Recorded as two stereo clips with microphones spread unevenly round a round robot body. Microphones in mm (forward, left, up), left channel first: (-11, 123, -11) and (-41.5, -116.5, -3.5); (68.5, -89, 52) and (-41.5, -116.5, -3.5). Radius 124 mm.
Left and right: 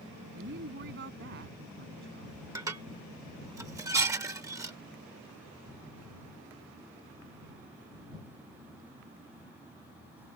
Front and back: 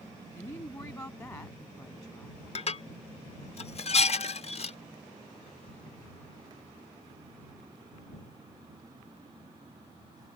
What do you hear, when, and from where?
0.3 s a woman speaking: 50° right
2.5 s dishes clattering: 25° right